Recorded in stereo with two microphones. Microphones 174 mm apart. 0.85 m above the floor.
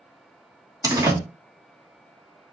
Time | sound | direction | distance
0.8 | a door slam | 20° right (ahead or behind) | 1.1 m